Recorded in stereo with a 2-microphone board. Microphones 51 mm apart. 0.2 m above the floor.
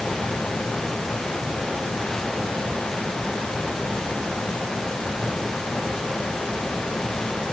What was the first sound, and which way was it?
Only background noise.